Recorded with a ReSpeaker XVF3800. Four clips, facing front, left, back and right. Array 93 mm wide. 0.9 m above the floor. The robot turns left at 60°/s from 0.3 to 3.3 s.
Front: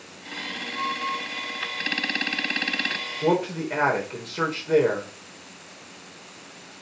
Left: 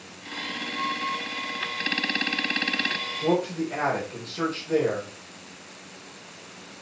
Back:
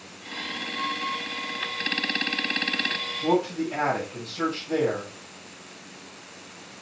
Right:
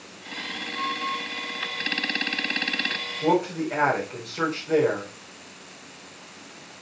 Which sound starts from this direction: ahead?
A man speaking, at 3.2 s.